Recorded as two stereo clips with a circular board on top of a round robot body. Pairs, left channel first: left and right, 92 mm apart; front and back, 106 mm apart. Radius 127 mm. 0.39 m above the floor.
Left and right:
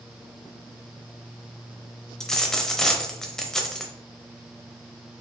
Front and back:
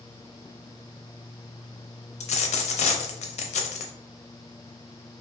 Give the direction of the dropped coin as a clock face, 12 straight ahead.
12 o'clock.